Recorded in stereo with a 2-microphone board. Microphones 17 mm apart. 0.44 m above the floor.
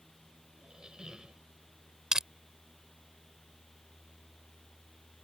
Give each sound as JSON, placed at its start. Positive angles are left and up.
{"t": 0.6, "sound": "a squeak", "side_deg": -60}
{"t": 2.1, "sound": "crushing", "side_deg": -45}